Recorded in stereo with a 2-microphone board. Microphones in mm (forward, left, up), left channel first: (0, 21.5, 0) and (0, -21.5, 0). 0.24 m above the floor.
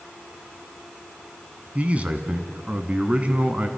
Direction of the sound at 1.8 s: 30° right (ahead or behind).